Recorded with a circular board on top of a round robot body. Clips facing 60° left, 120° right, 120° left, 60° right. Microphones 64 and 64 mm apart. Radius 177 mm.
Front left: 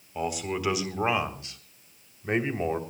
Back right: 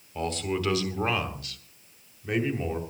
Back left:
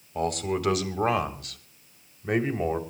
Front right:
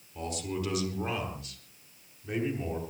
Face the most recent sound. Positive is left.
turn(degrees=105)